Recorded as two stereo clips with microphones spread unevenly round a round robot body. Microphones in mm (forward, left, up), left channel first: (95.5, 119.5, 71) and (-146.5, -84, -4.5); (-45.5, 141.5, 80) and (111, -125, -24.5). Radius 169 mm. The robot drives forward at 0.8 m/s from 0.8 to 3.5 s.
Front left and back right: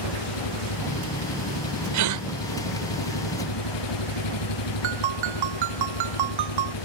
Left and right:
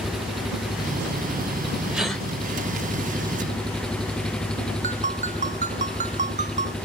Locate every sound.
0.0 s an engine running: 30° left; by 6.8 s 35° left
1.9 s a gasp: 135° right; by 2.2 s 145° right
4.8 s a ringtone: 130° right